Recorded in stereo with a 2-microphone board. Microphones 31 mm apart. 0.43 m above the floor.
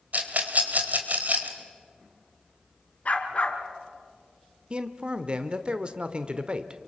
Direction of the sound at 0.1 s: 55° right (ahead or behind).